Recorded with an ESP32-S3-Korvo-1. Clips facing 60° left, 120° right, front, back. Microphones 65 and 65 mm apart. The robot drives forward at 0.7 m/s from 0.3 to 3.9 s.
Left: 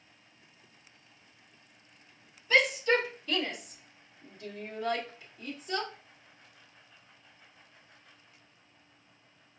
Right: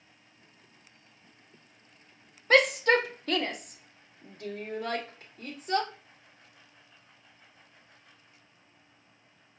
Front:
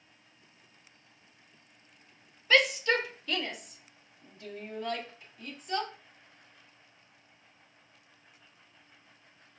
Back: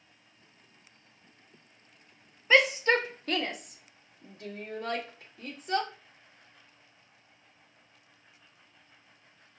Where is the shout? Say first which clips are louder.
Right 3 dB, back 2 dB; 110° right, 0.7 m; by 5.9 s 155° right, 1.3 m.